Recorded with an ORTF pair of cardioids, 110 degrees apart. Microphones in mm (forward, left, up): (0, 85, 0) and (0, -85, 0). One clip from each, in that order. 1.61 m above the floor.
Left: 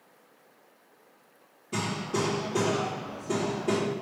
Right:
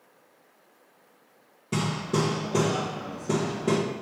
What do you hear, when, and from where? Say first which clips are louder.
1.7 s hammering: right 2 dB; 60° right, 1.8 m